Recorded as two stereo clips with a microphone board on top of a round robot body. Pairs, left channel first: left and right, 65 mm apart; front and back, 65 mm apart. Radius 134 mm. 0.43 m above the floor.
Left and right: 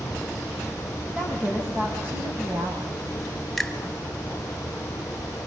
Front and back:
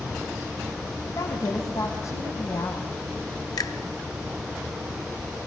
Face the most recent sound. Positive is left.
turn(degrees=5)